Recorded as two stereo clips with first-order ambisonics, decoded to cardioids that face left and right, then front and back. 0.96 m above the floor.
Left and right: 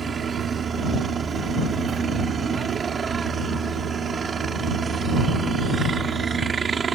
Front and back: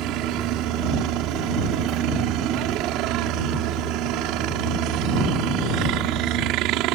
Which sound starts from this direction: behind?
A helicopter, at 0.0 s.